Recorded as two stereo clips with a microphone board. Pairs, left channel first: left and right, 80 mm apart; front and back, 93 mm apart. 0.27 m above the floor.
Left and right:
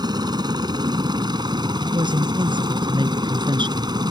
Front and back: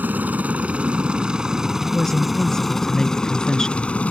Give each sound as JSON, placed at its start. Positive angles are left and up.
{"t": 0.0, "sound": "a helicopter", "azimuth_deg": -110}
{"t": 1.8, "sound": "a woman speaking", "azimuth_deg": -85}